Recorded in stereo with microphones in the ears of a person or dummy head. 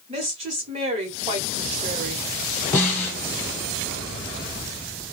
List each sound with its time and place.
0.1 s a woman speaking: 35° right (ahead or behind), 1.1 m
2.7 s a snare drum: 10° left (ahead or behind), 1.0 m